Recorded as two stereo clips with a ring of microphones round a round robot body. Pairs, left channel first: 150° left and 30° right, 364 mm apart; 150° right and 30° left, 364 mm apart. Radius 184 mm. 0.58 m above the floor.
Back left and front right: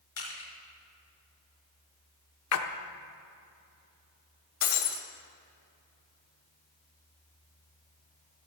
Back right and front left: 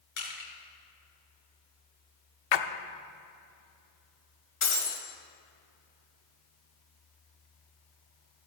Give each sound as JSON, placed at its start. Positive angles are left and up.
{"t": 0.2, "sound": "crushing", "azimuth_deg": -155, "distance_m": 4.5}
{"t": 2.5, "sound": "a splash", "azimuth_deg": -160, "distance_m": 0.8}
{"t": 4.6, "sound": "breaking glass", "azimuth_deg": 150, "distance_m": 1.7}